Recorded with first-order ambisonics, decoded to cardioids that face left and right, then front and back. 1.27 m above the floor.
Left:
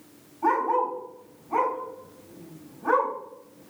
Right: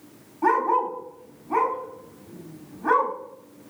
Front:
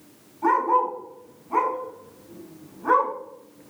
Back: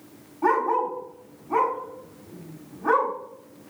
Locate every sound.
0.4 s a dog barking: 115° right, 1.3 m